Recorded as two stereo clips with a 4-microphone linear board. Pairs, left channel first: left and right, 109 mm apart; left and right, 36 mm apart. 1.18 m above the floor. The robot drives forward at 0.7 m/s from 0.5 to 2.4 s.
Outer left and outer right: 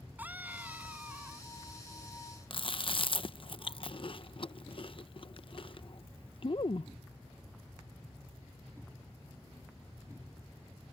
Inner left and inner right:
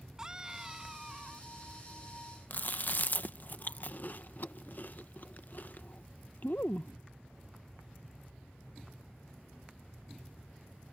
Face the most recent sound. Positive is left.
turn(degrees=50)  # may be behind; listen again after turning